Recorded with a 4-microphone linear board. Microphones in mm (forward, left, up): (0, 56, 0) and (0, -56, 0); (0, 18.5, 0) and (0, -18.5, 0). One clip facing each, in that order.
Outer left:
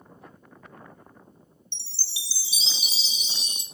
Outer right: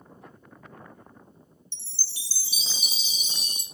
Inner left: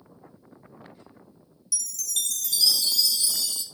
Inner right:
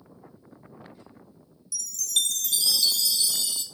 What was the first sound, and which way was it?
A chime, 45° right (ahead or behind).